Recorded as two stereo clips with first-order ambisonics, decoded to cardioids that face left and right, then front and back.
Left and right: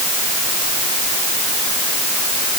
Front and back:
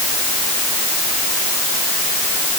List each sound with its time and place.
Only background noise.